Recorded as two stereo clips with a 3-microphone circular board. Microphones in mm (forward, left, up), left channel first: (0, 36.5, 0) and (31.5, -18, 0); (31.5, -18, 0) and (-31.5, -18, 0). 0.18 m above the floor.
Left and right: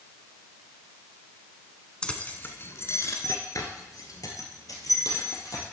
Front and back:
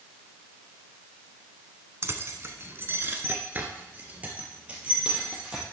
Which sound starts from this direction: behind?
Keys jangling, at 2.0 s.